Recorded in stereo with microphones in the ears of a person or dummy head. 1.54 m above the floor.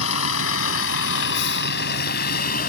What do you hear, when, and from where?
0.0 s a vehicle: 85° left; by 2.7 s 50° left (ahead or behind)